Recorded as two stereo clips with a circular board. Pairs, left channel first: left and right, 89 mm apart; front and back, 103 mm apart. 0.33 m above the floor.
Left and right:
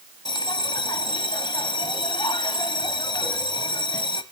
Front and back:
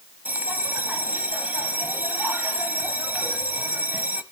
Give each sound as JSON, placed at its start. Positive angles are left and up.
{"t": 0.2, "sound": "a bell", "azimuth_deg": 110, "distance_m": 1.1}